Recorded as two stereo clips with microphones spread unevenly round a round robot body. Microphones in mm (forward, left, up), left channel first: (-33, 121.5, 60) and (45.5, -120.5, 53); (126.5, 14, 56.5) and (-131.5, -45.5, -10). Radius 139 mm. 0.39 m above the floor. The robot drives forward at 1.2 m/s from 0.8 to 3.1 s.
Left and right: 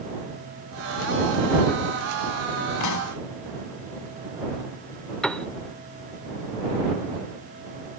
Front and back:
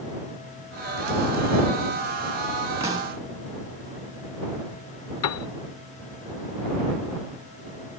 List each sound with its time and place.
2.8 s a pop: 115° left; by 3.2 s 125° left
5.2 s a piano: 20° left